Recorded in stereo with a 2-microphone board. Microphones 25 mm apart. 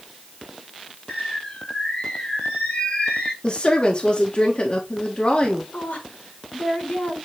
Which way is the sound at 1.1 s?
45° left (ahead or behind).